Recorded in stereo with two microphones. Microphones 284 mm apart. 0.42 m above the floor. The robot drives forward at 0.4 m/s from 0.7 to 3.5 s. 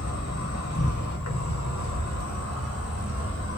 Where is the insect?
65° left (ahead or behind), 0.9 m; by 3.6 s 45° left (ahead or behind), 1.2 m.